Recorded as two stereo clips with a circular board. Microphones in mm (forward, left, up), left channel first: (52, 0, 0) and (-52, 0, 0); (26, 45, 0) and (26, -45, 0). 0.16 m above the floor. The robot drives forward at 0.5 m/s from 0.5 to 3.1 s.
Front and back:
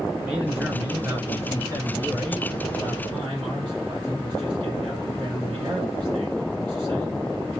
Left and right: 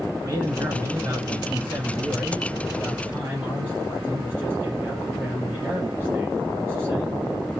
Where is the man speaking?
100° right, 1.4 m; by 7.2 s 155° right, 2.0 m.